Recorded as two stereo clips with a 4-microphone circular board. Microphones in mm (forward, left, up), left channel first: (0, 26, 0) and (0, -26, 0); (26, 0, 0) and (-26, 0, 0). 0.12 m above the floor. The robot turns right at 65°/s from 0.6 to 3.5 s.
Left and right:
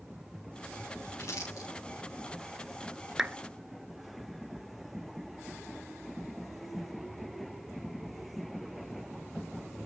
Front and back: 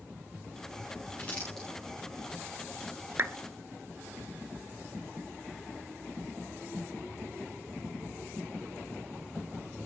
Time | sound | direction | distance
1.2 | crumpling | 55° left | 8.5 m
3.2 | a clap | 165° right | 1.2 m